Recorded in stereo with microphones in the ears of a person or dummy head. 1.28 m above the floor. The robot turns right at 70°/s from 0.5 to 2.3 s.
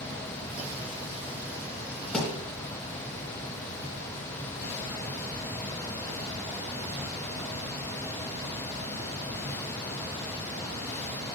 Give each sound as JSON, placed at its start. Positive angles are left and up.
{"t": 2.1, "sound": "a thud", "side_deg": 0, "distance_m": 2.5}